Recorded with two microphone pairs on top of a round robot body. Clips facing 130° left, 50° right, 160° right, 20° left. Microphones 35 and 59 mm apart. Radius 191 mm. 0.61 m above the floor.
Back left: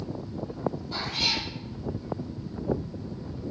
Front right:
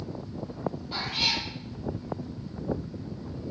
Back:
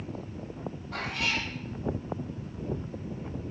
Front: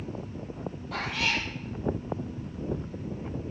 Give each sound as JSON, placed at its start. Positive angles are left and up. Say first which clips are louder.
{"t": 0.9, "sound": "a cat meowing", "louder": "front right 2 dB, front 2 dB", "azimuth_deg": 25, "distance_m": 4.5}